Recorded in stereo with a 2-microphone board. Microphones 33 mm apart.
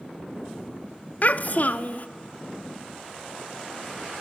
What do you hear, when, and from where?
1.2 s a child speaking: 55° left (ahead or behind), 0.6 m